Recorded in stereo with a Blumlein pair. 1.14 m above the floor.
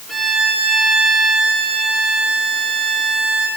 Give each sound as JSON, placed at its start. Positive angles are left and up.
{"t": 0.1, "sound": "a violin", "azimuth_deg": 0, "distance_m": 3.0}